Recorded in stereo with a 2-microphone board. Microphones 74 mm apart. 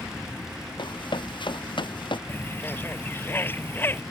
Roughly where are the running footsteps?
Left.